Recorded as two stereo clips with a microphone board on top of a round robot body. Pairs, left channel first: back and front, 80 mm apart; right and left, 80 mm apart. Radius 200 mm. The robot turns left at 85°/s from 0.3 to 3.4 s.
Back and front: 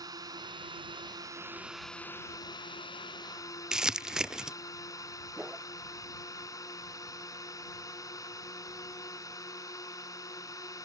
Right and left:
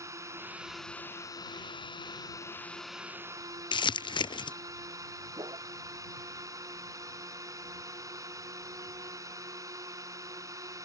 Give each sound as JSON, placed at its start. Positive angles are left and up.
{"t": 0.0, "sound": "a drone", "azimuth_deg": 40}
{"t": 3.7, "sound": "crumpling", "azimuth_deg": -85}
{"t": 5.4, "sound": "a whoosh", "azimuth_deg": 75}